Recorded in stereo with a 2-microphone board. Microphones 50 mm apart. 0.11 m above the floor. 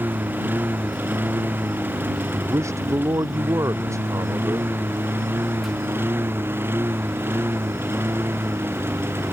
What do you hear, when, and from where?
0.0 s a lawn mower: 40° right (ahead or behind); by 9.3 s 50° right (ahead or behind)
2.3 s a man speaking: 75° right (ahead or behind)